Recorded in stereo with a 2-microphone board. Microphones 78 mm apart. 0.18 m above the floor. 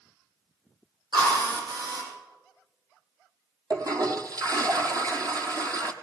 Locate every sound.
1.1 s a drill: 80° right, 7.5 m
3.7 s a toilet flushing: 50° right (ahead or behind), 1.2 m